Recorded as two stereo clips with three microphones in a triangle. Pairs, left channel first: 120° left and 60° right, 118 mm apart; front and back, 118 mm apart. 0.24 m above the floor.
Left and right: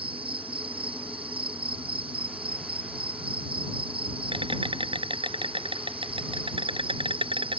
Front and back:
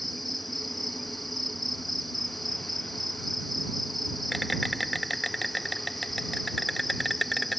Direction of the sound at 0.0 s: 90° right.